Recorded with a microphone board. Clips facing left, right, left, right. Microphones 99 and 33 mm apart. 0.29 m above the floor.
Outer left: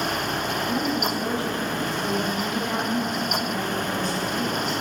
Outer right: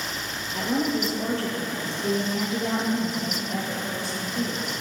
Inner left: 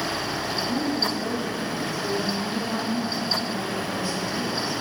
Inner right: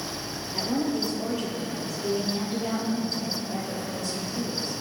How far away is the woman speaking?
About 6 m.